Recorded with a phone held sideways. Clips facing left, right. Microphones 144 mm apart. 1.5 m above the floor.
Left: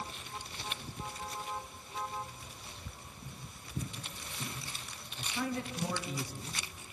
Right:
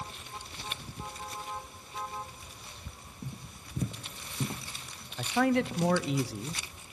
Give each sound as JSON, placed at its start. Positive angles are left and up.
{"t": 3.2, "sound": "footsteps", "side_deg": -40, "distance_m": 2.5}
{"t": 5.2, "sound": "a man speaking", "side_deg": -80, "distance_m": 0.8}